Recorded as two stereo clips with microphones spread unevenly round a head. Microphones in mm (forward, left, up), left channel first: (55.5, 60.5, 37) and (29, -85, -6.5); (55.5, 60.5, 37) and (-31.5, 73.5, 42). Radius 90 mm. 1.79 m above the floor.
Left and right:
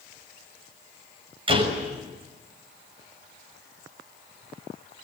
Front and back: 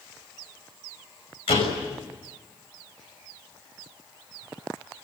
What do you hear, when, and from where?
1.5 s a door slam: 45° right, 6 m